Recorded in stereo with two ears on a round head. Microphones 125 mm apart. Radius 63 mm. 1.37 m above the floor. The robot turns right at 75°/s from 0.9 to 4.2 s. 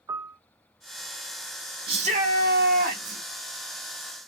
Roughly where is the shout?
Behind right.